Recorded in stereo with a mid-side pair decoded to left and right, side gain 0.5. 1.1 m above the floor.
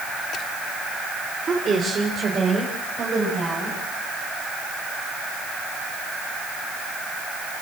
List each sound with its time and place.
1.5 s a woman speaking: 40° right, 3 m; by 3.8 s 45° right, 7 m